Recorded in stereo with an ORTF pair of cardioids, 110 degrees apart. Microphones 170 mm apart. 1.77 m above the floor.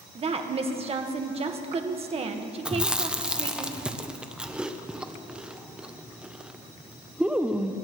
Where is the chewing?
5° right, 0.8 m.